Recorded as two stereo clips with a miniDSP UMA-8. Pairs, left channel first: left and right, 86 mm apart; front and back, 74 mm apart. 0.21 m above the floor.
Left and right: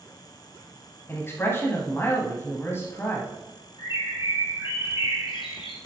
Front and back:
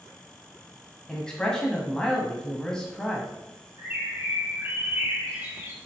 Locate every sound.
1.1 s a man speaking: 70° left, 1.1 m
3.8 s a bird: 115° left, 1.9 m